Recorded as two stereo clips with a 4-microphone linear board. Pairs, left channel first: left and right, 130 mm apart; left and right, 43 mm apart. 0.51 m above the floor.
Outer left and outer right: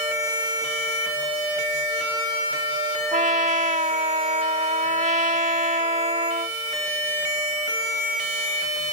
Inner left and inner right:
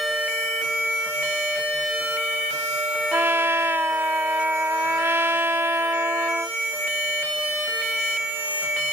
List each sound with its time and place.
3.1 s a trumpet: 70° right (ahead or behind)